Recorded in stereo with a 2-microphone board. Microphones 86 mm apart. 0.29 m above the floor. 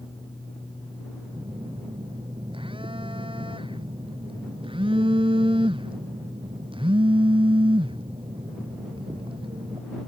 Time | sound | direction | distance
1.3 | a phone buzzing | 80° right | ?